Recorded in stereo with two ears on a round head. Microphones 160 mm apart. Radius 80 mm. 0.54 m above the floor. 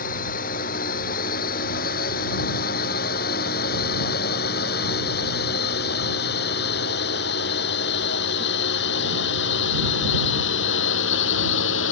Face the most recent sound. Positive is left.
turn(degrees=75)  # may be behind; listen again after turning